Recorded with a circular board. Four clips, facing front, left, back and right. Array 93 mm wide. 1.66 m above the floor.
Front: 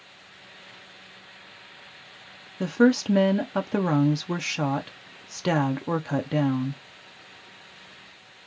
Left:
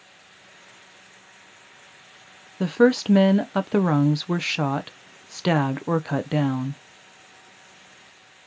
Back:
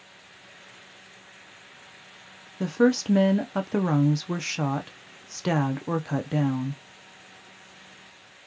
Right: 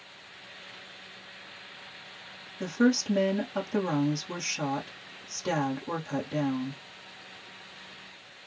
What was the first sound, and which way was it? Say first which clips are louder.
A woman speaking: left 7 dB, front 1 dB; 80° left.